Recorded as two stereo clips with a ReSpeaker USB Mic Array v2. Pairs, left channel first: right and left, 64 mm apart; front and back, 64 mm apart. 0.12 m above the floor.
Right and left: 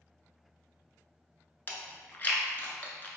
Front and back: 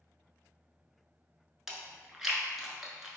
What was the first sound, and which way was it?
Chewing, 100° right.